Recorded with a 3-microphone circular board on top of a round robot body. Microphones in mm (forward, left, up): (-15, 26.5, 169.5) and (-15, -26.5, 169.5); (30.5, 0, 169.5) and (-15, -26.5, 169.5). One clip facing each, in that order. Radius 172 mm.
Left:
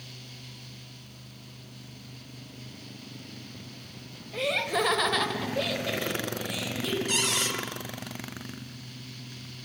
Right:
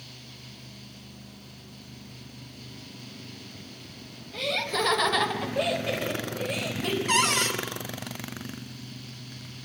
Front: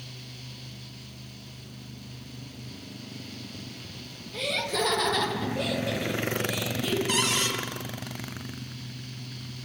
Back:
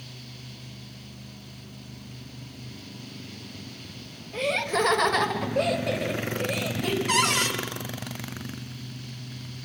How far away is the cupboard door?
About 1.9 m.